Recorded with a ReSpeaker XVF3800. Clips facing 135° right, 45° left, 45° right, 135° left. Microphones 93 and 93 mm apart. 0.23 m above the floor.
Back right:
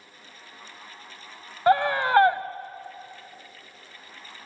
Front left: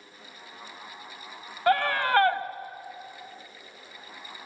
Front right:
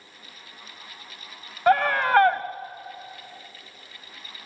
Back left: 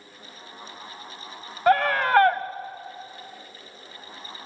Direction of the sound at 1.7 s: 140° right.